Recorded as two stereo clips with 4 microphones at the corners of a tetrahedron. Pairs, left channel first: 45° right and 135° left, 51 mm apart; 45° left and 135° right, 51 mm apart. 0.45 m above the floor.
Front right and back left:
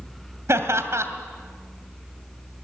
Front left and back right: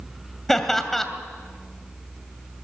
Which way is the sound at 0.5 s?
130° left.